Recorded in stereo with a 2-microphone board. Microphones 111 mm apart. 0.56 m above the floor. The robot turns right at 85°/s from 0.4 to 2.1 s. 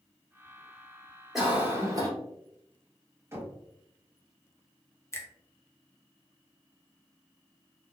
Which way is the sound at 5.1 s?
25° left (ahead or behind).